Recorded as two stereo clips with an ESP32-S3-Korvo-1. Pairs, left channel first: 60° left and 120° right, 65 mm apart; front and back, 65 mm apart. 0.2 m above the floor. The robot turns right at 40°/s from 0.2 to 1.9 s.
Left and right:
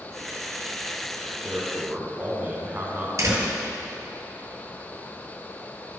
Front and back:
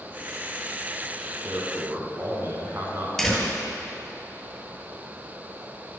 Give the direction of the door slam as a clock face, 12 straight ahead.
3 o'clock.